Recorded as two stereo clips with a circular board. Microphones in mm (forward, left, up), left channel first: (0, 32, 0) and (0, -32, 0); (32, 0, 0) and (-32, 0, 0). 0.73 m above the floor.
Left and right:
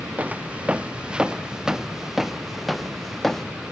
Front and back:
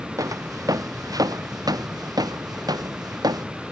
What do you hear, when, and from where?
0.2 s footsteps: 155° right; by 3.5 s 175° left